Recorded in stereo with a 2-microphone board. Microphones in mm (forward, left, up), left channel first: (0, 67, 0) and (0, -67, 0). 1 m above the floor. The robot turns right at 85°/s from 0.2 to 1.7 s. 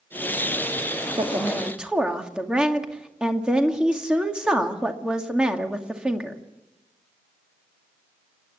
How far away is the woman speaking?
About 2 m.